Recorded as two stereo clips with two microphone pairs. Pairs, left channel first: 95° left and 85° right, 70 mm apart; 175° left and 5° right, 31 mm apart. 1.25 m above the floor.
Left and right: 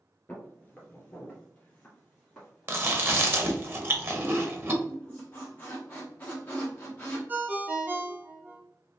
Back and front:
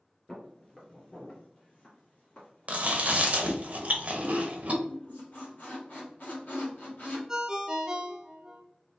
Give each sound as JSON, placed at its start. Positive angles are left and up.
{"t": 0.3, "sound": "footsteps", "azimuth_deg": 135, "distance_m": 1.3}
{"t": 2.7, "sound": "chewing", "azimuth_deg": -35, "distance_m": 0.8}
{"t": 4.8, "sound": "a squeak", "azimuth_deg": 160, "distance_m": 1.5}
{"t": 7.3, "sound": "a ringtone", "azimuth_deg": -50, "distance_m": 0.6}